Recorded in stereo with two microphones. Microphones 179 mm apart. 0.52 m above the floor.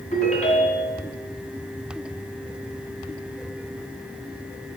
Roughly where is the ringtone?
Left.